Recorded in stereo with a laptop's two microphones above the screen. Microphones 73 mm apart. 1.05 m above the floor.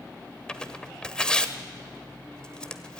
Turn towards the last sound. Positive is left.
turn(degrees=10)  # may be behind; listen again after turning